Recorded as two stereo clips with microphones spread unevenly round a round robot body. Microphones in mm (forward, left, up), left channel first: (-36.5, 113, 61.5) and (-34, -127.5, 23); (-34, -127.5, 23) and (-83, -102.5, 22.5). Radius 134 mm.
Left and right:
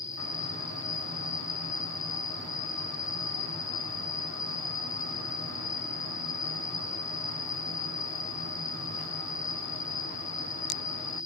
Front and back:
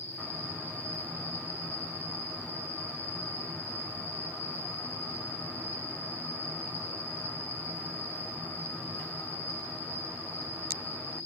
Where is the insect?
75° left, 2.5 m.